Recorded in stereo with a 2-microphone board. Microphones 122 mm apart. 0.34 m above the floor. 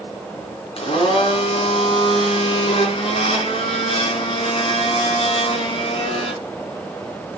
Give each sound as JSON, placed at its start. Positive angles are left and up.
{"t": 0.8, "sound": "a blender", "side_deg": 50, "distance_m": 3.0}